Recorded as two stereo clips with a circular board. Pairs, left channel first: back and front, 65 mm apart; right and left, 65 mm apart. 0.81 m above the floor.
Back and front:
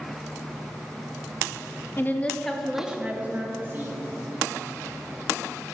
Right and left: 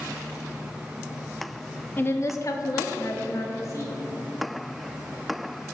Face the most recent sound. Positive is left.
turn(degrees=-55)